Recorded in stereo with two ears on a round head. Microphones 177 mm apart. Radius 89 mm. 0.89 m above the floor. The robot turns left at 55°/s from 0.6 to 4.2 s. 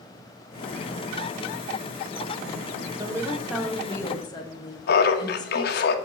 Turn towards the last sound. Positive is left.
turn(degrees=55)  # may be behind; listen again after turning